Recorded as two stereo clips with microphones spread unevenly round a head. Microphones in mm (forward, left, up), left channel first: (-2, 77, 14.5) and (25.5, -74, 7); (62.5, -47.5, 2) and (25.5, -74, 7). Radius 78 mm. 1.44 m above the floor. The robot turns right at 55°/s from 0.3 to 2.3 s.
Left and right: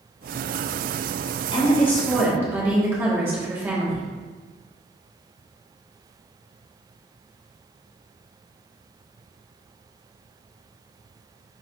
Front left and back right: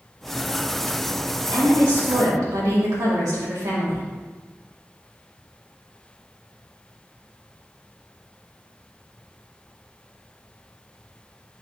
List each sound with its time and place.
1.5 s a woman speaking: 160° left, 1.8 m; by 4.1 s 160° right, 1.8 m